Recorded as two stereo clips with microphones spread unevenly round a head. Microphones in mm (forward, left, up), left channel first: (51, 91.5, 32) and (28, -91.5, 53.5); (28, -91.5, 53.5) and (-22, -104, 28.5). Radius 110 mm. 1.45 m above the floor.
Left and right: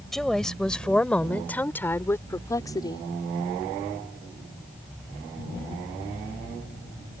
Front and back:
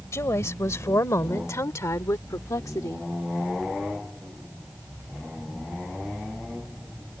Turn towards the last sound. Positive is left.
turn(degrees=15)